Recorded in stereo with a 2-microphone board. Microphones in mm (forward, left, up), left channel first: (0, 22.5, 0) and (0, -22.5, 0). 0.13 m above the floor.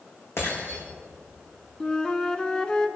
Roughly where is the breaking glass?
Left.